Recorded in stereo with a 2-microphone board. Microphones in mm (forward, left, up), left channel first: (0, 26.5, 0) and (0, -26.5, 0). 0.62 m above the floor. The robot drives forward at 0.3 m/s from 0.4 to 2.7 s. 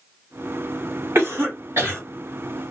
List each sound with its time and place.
1.1 s a cough: 50° right (ahead or behind), 1.9 m